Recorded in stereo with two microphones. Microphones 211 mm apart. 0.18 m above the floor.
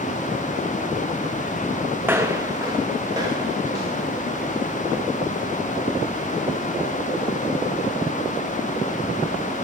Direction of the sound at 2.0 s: 10° right (ahead or behind).